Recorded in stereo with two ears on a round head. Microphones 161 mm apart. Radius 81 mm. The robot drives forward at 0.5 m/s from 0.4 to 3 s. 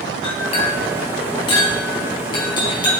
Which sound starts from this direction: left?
A clink, at 0.2 s.